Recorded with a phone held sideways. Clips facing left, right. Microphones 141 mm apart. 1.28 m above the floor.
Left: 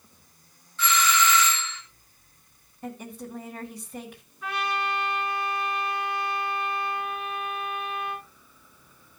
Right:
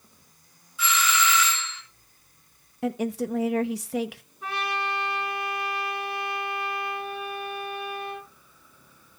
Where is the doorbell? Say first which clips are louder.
Left 2 dB; 10° right (ahead or behind), 3.5 m.